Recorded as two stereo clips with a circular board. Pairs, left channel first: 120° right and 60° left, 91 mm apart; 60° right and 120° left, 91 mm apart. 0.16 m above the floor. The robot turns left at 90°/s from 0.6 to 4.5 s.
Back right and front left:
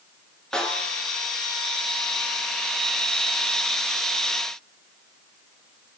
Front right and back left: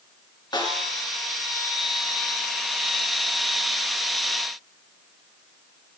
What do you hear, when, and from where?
0.5 s a snare drum: 40° right, 2.0 m; by 1.0 s 80° right, 2.0 m